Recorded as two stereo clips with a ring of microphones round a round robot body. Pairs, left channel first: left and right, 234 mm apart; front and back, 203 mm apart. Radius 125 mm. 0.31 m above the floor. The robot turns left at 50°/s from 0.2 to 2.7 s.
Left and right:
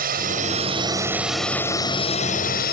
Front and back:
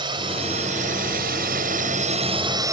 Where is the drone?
120° right; by 2.7 s 115° left.